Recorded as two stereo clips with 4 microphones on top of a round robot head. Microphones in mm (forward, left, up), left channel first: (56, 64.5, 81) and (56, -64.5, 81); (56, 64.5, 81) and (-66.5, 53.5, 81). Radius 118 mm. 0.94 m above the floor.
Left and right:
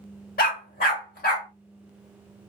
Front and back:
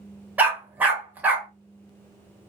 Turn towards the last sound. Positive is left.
turn(degrees=110)